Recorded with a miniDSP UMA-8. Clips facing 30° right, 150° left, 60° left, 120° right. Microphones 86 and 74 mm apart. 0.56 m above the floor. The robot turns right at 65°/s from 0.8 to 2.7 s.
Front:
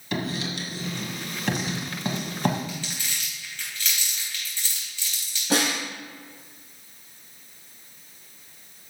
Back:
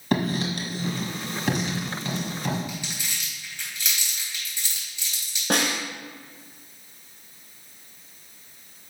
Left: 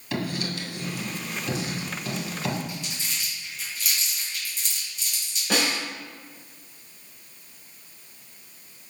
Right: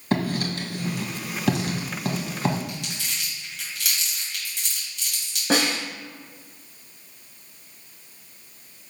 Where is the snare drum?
175° right, 3 m.